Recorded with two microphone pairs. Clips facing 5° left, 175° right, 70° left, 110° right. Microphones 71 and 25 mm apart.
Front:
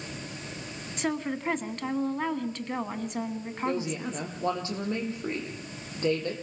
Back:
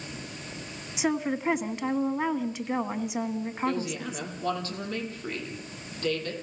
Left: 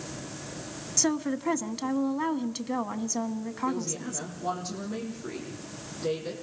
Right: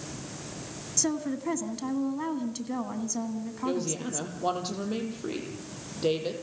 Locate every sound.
1.0 s a woman speaking: 115° left, 1.4 m
3.6 s a woman speaking: 60° right, 6 m